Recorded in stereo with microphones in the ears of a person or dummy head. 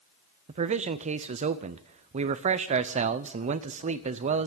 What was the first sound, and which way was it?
A man speaking, 35° right (ahead or behind).